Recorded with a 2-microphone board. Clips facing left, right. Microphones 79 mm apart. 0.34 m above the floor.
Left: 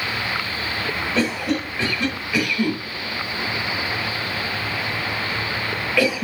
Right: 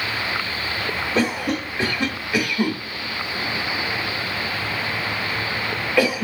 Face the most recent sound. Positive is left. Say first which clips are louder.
# even
turn(degrees=-20)  # may be behind; listen again after turning